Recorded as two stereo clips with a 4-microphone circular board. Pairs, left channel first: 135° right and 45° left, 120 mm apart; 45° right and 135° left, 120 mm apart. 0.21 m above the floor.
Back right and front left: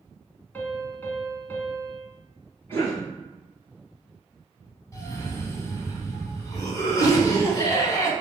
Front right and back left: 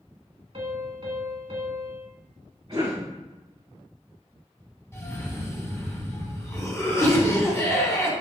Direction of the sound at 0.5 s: 155° left.